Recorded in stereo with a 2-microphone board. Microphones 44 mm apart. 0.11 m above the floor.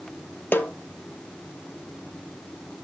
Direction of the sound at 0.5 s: 50° left (ahead or behind).